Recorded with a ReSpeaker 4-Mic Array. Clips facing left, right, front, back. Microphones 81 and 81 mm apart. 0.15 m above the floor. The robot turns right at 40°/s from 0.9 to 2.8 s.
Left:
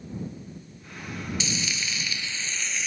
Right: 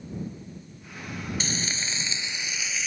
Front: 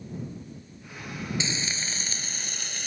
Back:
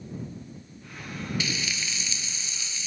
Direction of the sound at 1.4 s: 60° right.